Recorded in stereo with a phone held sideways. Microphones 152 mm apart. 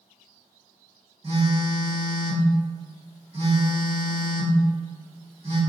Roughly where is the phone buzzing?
Right.